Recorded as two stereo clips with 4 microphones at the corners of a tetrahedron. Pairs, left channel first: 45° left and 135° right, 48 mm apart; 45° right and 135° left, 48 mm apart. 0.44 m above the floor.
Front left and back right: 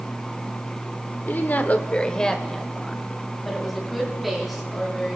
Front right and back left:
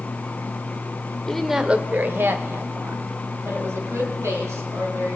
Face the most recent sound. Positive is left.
turn(degrees=140)